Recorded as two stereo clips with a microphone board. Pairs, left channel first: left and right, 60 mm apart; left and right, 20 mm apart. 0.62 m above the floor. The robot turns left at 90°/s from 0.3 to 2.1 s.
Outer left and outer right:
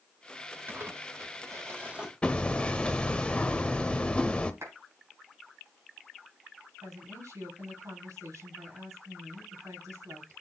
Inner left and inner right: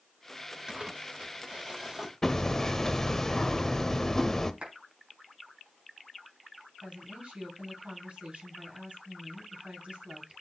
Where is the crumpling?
40° right, 2 m; by 2.1 s 165° right, 2 m.